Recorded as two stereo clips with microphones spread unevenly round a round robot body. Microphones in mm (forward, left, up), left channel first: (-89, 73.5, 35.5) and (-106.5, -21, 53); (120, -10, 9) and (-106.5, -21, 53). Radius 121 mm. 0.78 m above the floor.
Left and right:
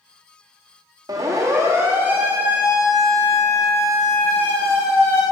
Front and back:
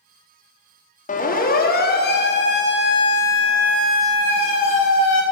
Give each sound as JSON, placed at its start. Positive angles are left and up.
{"t": 1.1, "sound": "a siren", "azimuth_deg": -40, "distance_m": 2.0}